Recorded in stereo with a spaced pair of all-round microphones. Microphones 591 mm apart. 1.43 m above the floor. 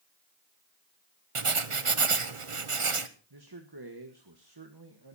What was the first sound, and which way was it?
Writing, 55° right (ahead or behind).